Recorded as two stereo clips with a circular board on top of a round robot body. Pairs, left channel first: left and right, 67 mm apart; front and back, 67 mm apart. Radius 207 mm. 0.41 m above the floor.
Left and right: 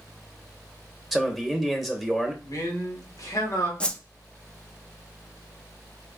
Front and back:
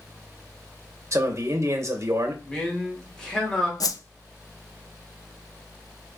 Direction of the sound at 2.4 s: 75° left.